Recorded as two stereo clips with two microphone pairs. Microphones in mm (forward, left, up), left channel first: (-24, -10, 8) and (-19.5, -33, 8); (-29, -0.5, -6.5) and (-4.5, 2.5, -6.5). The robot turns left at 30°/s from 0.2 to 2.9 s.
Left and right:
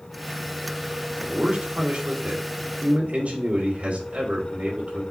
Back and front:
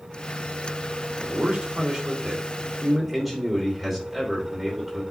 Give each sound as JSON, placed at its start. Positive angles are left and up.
{"t": 1.3, "sound": "a man speaking", "azimuth_deg": -30, "distance_m": 3.0}